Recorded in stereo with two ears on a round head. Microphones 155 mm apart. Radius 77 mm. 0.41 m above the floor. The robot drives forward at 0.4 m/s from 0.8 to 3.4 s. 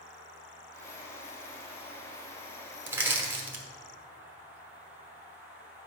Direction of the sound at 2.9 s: 10° right (ahead or behind).